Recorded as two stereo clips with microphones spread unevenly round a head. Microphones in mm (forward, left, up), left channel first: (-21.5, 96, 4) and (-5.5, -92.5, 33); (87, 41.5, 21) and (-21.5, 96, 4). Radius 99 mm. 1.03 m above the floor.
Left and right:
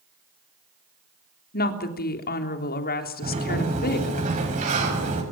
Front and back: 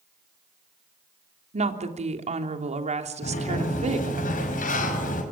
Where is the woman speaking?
130° left, 3.5 m.